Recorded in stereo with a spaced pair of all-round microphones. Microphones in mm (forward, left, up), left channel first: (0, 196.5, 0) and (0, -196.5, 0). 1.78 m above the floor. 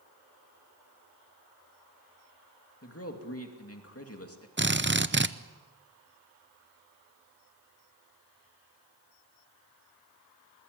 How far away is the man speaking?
About 2.5 m.